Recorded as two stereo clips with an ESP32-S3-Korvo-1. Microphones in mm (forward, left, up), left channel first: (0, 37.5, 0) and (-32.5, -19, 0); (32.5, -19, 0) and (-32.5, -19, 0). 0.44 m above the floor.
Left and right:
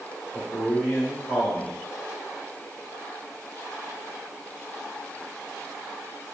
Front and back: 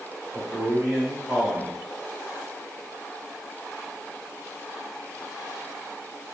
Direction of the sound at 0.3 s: 110° left.